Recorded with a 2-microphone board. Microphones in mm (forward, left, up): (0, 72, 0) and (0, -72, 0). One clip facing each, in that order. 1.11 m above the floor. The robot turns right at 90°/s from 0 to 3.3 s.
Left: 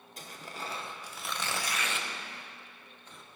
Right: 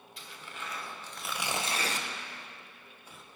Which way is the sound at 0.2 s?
40° left (ahead or behind).